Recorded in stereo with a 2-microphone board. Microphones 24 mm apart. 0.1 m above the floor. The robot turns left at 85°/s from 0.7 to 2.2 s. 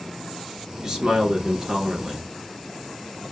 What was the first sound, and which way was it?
A man speaking, 45° right.